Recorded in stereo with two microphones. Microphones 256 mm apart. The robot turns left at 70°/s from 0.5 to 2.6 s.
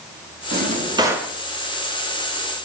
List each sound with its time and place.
0.5 s a drawer: 125° right, 0.5 m; by 1.3 s 175° left, 0.5 m